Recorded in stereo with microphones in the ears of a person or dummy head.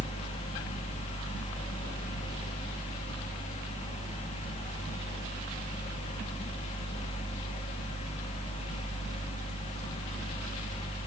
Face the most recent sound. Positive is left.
turn(degrees=35)  # may be behind; listen again after turning